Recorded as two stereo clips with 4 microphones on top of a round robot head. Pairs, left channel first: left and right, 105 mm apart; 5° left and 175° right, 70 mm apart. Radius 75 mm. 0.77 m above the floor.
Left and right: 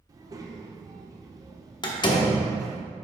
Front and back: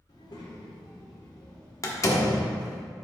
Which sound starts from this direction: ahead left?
A door slam, at 1.8 s.